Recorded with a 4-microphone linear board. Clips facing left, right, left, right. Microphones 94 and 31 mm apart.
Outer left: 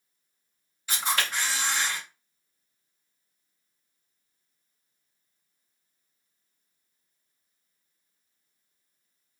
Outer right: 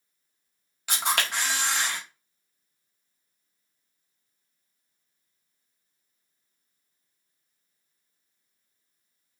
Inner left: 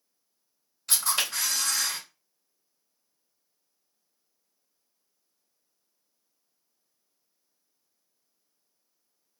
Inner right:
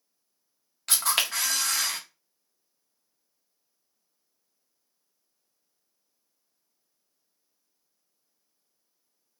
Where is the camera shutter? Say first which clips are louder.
Outer right 1 dB, inner right 2 dB; 75° right (ahead or behind), 1.0 m.